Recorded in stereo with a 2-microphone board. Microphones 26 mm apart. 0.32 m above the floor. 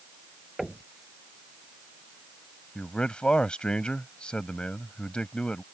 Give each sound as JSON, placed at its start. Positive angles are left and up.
{"t": 0.6, "sound": "knocking", "side_deg": -5}
{"t": 2.8, "sound": "a man speaking", "side_deg": 35}